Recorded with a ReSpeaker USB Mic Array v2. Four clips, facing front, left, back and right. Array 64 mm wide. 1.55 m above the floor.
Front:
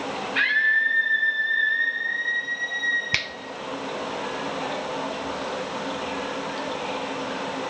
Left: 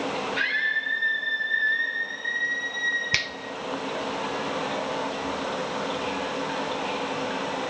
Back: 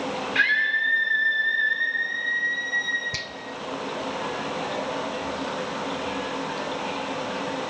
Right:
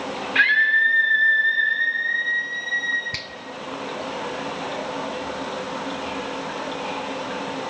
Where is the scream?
105° right, 5.5 m.